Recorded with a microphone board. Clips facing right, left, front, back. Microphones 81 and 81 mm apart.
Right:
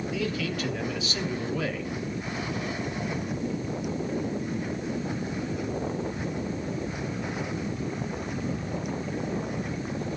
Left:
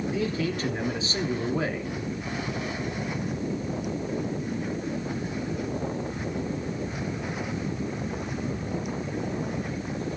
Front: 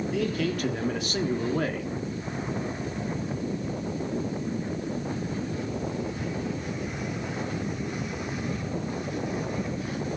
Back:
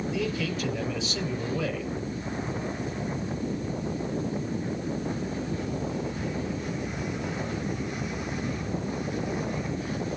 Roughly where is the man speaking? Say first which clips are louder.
Even, front 4 dB; ahead left.